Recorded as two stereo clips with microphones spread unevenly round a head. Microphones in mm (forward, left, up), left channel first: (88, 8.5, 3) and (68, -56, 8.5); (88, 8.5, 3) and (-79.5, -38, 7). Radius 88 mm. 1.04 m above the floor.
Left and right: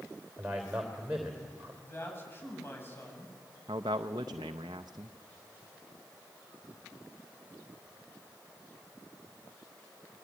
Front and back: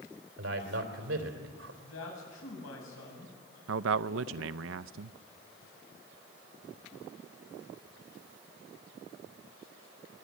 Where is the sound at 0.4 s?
170° left, 3.5 m.